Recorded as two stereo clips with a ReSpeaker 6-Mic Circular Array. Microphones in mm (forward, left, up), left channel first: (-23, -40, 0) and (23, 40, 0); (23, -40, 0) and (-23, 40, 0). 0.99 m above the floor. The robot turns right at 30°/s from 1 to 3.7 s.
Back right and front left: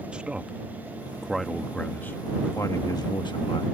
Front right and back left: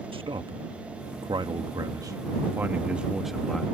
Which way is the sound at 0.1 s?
140° left.